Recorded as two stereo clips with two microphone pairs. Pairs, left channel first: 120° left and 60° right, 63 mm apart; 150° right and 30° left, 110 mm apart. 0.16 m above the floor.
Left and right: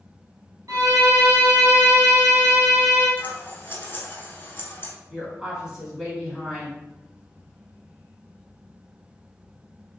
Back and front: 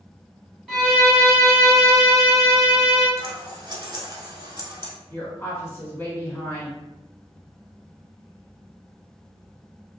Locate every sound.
0.7 s a violin: 60° right, 1.1 m
3.2 s scissors: 70° left, 0.5 m
5.1 s a woman speaking: 125° right, 1.1 m